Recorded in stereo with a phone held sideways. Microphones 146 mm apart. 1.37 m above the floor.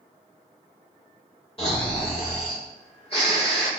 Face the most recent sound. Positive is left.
turn(degrees=40)  # may be behind; listen again after turning